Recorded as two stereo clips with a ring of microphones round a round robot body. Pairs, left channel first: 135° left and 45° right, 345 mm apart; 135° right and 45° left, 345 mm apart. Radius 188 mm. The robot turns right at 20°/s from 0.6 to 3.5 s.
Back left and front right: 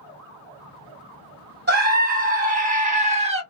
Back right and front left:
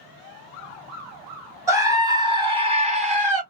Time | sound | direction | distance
1.7 | a scream | 30° right | 1.4 m